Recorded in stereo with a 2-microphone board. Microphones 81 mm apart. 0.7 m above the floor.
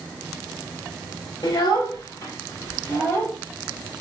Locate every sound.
1.4 s a child speaking: 65° left (ahead or behind), 1.5 m; by 3.3 s 40° left (ahead or behind), 3 m